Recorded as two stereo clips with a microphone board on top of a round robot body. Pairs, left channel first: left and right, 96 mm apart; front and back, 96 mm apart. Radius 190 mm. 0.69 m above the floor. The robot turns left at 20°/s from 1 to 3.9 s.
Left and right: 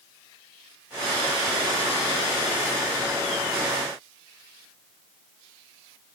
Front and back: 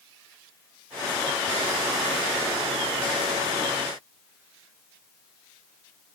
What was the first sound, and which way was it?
Only background noise.